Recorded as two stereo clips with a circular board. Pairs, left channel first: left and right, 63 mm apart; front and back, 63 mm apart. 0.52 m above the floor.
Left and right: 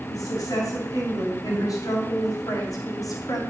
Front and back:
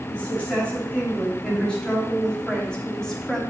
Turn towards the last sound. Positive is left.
turn(degrees=80)